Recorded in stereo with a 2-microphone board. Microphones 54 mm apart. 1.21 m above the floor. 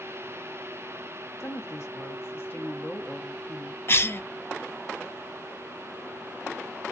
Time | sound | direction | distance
1.4 | a woman speaking | 50° left (ahead or behind) | 0.9 m
3.9 | a cough | 45° left (ahead or behind) | 0.5 m